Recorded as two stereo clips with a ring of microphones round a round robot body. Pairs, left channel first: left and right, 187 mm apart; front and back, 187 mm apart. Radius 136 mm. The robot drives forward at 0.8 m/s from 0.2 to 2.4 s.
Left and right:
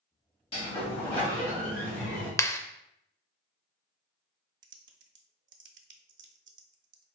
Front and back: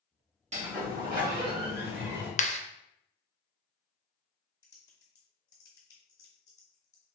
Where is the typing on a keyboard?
75° right, 0.5 m.